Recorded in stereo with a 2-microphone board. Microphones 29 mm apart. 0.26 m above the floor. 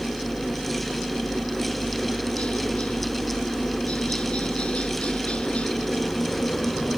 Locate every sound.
0.0 s a helicopter: 45° left (ahead or behind)